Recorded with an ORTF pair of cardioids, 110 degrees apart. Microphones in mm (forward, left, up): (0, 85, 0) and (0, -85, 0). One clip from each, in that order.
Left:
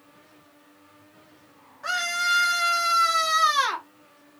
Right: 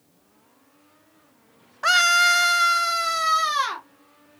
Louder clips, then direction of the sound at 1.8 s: Right 8 dB; 60° right.